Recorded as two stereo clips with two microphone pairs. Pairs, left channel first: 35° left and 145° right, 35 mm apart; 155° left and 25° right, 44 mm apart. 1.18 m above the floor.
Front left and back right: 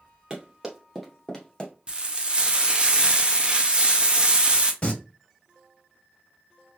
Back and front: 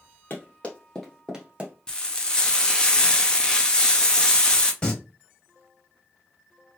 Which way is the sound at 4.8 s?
90° left.